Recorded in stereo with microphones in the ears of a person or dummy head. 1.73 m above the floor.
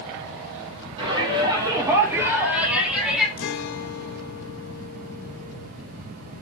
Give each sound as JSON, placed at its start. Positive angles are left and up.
{"t": 1.0, "sound": "a shout", "side_deg": -30, "distance_m": 3.0}
{"t": 3.4, "sound": "a guitar", "side_deg": 70, "distance_m": 1.6}